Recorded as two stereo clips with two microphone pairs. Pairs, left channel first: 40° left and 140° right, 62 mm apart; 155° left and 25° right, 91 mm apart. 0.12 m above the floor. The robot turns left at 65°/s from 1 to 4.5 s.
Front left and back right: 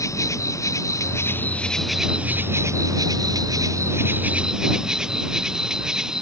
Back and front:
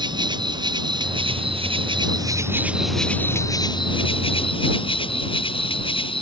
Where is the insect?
10° left; by 6.2 s 145° left.